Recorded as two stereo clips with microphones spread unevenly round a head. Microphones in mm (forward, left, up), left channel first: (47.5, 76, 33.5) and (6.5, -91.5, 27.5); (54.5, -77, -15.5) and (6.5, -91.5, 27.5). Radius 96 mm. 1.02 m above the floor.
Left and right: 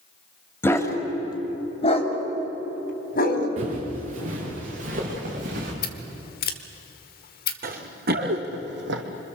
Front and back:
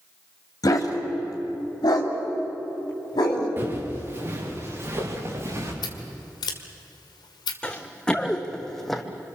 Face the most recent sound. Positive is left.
turn(degrees=-95)